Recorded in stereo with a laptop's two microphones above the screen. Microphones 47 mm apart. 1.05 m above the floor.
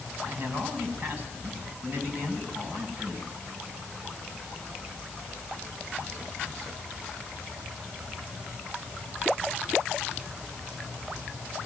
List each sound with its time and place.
0.2 s a man speaking: 35° right (ahead or behind), 7 m